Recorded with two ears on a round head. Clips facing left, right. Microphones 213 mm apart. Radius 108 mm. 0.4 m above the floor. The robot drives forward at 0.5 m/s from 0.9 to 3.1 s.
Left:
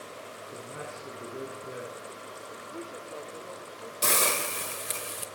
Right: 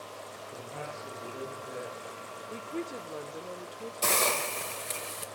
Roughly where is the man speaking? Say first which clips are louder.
Even; left.